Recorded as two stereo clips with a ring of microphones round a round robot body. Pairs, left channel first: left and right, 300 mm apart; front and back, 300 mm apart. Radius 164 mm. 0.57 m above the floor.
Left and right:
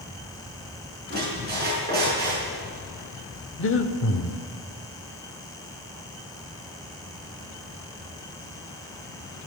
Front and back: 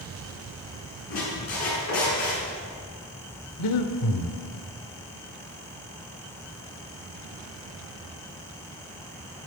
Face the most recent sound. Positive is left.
turn(degrees=40)